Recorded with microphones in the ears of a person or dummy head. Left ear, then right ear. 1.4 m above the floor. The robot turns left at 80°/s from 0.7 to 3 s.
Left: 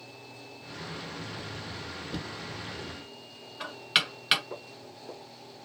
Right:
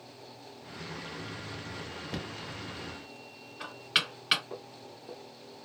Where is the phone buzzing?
No phone buzzing in this recording.